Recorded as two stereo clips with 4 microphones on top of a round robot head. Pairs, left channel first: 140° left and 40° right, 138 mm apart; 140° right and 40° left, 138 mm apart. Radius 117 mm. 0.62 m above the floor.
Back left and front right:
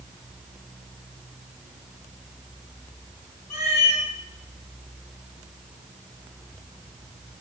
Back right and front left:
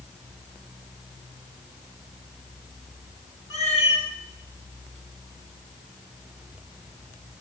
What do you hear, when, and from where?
3.5 s a cat meowing: straight behind, 1.9 m